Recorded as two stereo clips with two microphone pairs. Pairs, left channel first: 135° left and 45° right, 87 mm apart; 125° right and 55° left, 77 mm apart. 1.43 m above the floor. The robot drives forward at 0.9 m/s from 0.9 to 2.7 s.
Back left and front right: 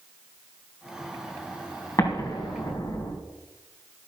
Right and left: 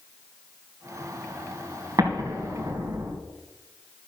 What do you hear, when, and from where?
2.0 s an explosion: 90° left, 3.5 m; by 3.1 s 100° left, 3.5 m